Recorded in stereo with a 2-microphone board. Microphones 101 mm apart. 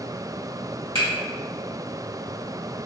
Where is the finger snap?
60° right (ahead or behind), 1.6 m.